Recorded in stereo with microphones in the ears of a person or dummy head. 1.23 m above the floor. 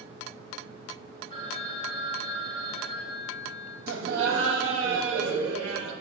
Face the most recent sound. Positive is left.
turn(degrees=-55)  # may be behind; listen again after turning